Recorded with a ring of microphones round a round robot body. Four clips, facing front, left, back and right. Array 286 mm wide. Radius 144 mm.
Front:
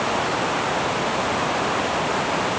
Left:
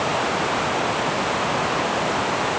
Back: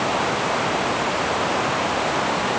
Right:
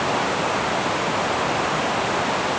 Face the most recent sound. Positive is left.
No sound to turn to.